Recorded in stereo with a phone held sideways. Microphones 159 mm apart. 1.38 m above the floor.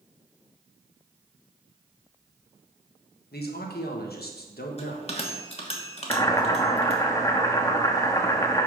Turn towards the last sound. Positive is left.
turn(degrees=20)  # may be behind; listen again after turning